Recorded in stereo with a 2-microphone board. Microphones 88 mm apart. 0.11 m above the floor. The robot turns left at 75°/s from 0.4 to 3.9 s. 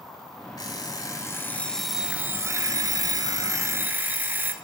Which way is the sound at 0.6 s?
100° left.